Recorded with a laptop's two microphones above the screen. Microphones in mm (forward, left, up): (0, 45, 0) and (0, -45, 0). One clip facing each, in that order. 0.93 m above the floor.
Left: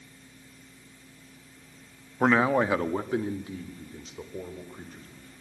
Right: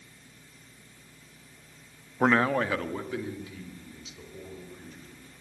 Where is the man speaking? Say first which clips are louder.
Left 2 dB; centre (ahead or behind), 1.1 m; by 5.3 s 50° left (ahead or behind), 4.5 m.